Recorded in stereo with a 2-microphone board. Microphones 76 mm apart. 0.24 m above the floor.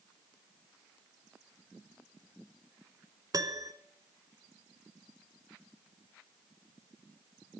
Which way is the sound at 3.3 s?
50° right (ahead or behind).